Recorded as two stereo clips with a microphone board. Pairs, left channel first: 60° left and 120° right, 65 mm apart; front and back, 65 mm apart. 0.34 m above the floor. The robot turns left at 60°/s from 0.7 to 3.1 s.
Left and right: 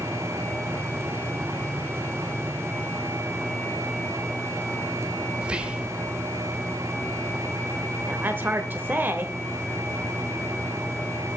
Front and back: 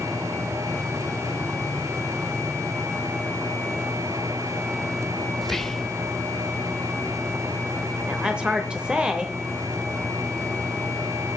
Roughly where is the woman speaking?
Behind right.